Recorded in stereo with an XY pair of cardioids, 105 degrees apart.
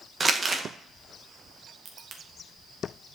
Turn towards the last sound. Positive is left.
turn(degrees=-65)